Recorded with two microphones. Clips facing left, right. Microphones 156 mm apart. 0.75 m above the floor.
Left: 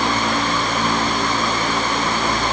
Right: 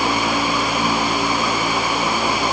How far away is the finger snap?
I don't hear a finger snap.